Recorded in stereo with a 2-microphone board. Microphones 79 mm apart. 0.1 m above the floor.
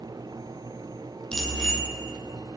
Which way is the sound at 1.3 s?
10° left (ahead or behind).